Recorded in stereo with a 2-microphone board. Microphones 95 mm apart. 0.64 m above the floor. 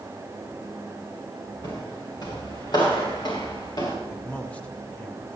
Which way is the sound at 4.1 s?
15° left (ahead or behind).